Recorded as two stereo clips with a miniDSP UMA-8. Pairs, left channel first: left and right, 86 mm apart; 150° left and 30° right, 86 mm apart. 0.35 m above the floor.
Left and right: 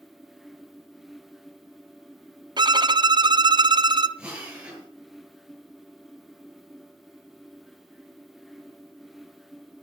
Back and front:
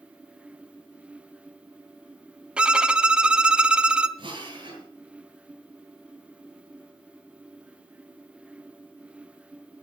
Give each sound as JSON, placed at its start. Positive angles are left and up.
{"t": 2.6, "sound": "a violin", "azimuth_deg": -105, "distance_m": 0.8}
{"t": 4.2, "sound": "a drill", "azimuth_deg": -15, "distance_m": 7.5}